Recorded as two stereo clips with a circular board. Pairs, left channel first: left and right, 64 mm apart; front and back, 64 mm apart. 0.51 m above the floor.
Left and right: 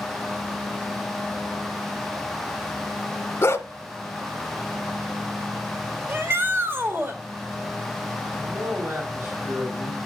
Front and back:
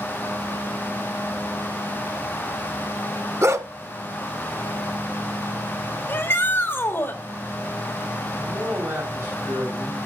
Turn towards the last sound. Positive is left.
turn(degrees=-130)